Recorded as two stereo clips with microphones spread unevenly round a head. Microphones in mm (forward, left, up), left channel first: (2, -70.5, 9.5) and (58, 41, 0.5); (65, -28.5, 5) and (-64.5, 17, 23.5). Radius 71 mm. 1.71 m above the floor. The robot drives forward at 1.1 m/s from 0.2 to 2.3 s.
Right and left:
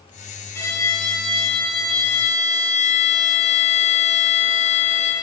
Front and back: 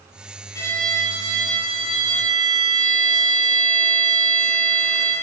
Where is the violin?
80° right, 1.0 m; by 5.1 s 165° right, 2 m.